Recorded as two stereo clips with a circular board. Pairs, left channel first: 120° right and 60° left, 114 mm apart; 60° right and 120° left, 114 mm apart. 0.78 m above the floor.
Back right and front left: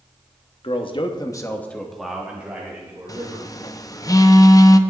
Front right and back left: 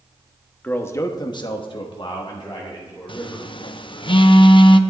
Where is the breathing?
No breathing in this recording.